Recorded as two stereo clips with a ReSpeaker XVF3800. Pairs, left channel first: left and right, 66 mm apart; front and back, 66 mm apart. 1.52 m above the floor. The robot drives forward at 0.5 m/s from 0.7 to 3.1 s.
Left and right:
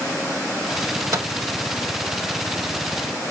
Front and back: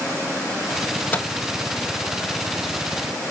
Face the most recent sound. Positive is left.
turn(degrees=-100)